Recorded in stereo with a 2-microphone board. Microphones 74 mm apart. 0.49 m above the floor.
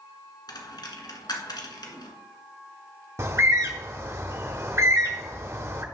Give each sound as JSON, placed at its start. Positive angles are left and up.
{"t": 0.5, "sound": "a dropped coin", "side_deg": 70, "distance_m": 1.5}
{"t": 3.2, "sound": "a bird", "side_deg": -40, "distance_m": 0.9}